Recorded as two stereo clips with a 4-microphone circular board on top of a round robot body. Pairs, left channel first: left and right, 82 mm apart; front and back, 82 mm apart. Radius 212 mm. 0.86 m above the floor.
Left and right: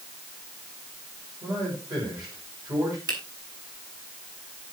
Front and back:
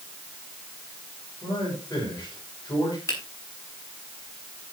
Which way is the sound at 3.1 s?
50° right.